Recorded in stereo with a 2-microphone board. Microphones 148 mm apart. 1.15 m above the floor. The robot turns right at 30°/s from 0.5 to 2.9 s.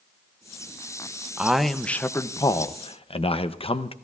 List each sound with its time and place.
1.4 s a man speaking: 10° right, 0.6 m; by 3.9 s 40° left, 0.6 m